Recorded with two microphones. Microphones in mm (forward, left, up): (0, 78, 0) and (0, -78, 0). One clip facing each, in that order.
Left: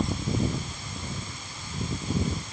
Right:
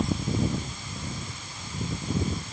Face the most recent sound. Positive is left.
No sound to turn to.